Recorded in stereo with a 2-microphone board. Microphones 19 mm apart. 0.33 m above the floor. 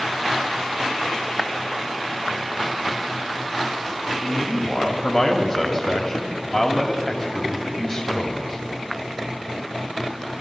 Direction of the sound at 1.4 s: 10° right (ahead or behind).